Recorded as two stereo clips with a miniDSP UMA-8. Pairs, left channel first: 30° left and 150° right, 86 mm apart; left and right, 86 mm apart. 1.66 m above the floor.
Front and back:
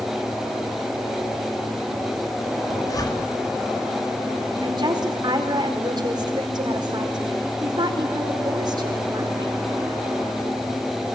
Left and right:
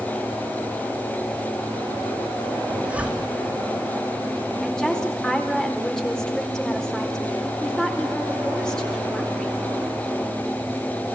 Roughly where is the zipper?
Ahead.